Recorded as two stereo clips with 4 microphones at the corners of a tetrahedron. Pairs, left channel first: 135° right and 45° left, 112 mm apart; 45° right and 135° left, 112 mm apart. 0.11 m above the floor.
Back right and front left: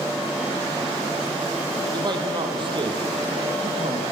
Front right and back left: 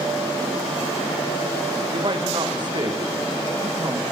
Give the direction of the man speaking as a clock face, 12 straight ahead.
9 o'clock.